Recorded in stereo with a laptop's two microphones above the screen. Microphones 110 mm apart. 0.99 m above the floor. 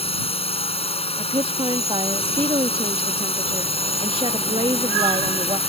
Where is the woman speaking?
55° right (ahead or behind).